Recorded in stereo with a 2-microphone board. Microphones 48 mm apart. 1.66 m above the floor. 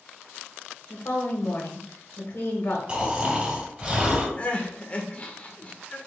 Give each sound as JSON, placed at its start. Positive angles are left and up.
{"t": 0.9, "sound": "a woman speaking", "side_deg": 55, "distance_m": 1.2}
{"t": 2.9, "sound": "snoring", "side_deg": -25, "distance_m": 1.6}
{"t": 4.4, "sound": "crying", "side_deg": 30, "distance_m": 0.7}